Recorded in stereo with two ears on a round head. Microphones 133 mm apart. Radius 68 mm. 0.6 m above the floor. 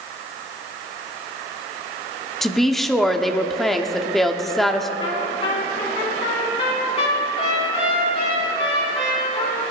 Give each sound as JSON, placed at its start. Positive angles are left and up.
{"t": 2.4, "sound": "a woman speaking", "side_deg": 0, "distance_m": 1.1}
{"t": 5.0, "sound": "a trumpet", "side_deg": 35, "distance_m": 5.0}